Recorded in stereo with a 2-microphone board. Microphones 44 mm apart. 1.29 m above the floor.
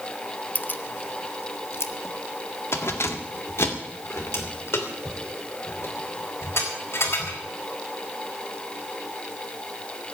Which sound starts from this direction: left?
Keys jangling, at 0.6 s.